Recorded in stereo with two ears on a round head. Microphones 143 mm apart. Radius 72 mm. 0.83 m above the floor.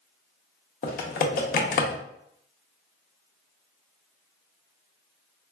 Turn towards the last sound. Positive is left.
turn(degrees=55)  # may be behind; listen again after turning